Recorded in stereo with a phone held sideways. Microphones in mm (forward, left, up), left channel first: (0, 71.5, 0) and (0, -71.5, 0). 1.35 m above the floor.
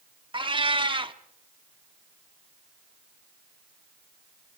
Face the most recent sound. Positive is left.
turn(degrees=-35)  # may be behind; listen again after turning